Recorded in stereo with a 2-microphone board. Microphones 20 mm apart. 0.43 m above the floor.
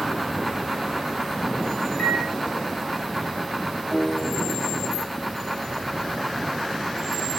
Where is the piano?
45° right (ahead or behind), 1.9 m.